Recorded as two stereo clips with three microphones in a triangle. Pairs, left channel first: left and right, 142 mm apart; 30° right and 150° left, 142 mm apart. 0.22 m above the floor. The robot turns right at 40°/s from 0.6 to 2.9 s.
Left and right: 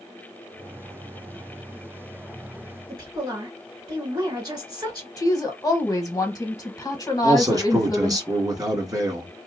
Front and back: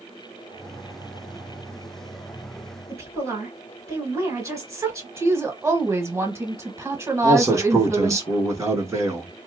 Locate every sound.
2.9 s a woman speaking: 145° right, 2.5 m
5.2 s a woman speaking: 105° left, 1.0 m
7.2 s a man speaking: 145° right, 1.8 m